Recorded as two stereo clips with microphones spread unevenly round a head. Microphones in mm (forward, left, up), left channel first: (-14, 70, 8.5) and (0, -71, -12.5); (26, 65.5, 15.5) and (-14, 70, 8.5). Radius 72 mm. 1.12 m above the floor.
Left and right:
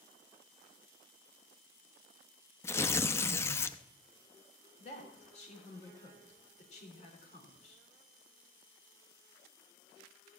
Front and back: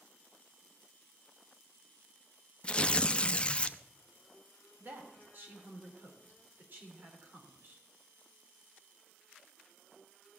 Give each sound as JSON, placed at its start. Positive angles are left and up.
{"t": 2.6, "sound": "tearing paper", "azimuth_deg": 40, "distance_m": 0.5}
{"t": 4.8, "sound": "a woman speaking", "azimuth_deg": 140, "distance_m": 3.5}